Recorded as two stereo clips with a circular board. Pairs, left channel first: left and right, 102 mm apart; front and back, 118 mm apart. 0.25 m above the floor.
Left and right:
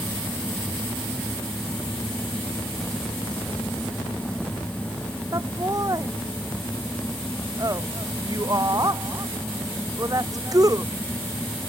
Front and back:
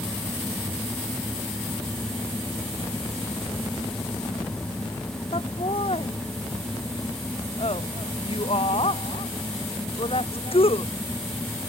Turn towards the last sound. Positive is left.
turn(degrees=-35)